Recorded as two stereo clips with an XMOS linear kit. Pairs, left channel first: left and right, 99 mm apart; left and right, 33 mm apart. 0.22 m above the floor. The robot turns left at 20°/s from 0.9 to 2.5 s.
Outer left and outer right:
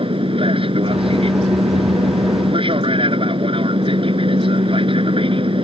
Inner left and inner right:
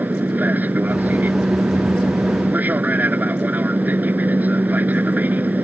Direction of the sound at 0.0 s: 75° right.